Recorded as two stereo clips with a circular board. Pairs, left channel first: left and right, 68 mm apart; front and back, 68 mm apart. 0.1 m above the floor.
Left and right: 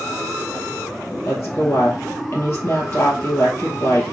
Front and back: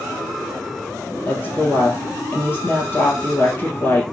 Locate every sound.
1.2 s a woman speaking: 50° left, 2 m